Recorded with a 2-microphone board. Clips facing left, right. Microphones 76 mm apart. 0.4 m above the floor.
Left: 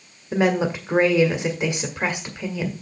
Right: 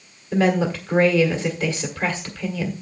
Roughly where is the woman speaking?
Centre.